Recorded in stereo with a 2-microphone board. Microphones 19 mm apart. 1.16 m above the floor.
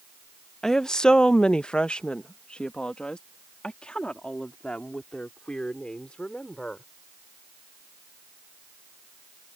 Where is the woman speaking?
30° left (ahead or behind); by 6.8 s 70° left (ahead or behind).